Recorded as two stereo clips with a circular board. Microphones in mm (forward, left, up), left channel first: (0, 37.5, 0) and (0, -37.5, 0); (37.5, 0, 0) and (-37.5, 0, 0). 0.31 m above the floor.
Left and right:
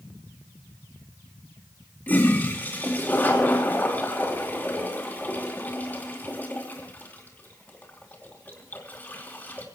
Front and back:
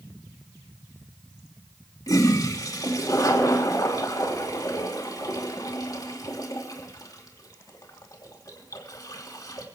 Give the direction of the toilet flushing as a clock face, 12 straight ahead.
11 o'clock.